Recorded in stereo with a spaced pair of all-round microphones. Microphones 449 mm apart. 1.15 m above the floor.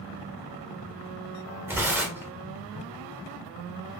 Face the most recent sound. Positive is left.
turn(degrees=-5)  # may be behind; listen again after turning